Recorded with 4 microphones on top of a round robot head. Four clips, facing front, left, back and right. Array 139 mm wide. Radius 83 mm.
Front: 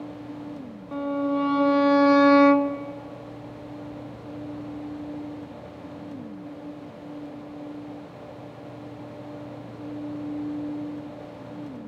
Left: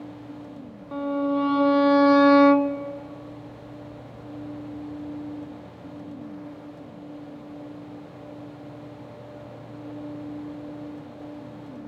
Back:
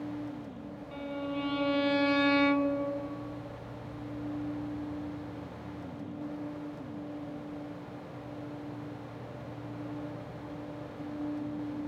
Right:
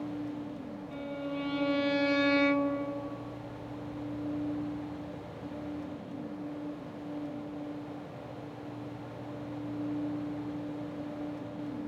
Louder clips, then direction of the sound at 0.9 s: Left 13 dB, front 11 dB; 50° left.